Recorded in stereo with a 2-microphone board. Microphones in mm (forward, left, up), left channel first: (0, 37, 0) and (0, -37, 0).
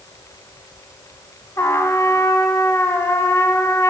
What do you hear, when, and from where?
1.6 s a trumpet: 45° left (ahead or behind), 0.6 m